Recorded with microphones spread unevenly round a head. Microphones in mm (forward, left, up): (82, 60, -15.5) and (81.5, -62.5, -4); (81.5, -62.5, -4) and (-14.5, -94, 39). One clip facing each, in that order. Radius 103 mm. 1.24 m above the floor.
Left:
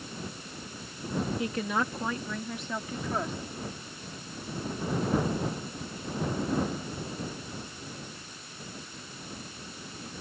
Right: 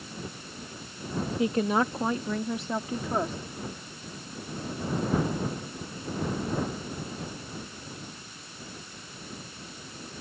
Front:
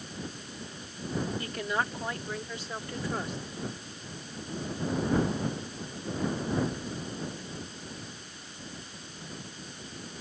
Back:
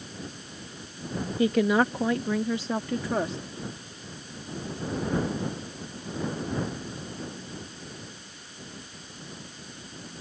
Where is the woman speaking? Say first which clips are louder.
Right 5 dB, back 10 dB; 165° right.